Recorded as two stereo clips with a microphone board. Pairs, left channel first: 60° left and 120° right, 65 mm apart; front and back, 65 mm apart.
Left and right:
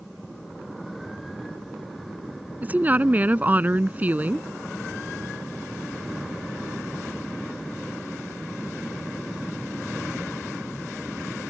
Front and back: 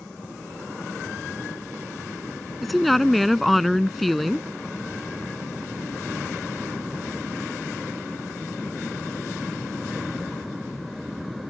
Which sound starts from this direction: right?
A woman speaking, at 2.6 s.